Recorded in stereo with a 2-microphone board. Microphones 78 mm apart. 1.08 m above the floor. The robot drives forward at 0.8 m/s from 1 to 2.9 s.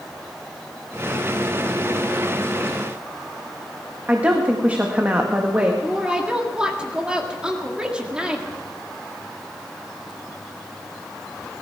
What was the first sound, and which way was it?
A woman speaking, 20° right (ahead or behind).